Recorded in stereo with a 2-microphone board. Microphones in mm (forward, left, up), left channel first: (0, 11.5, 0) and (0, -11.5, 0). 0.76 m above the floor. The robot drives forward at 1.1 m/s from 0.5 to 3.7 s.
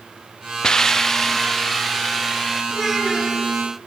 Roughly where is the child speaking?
Centre.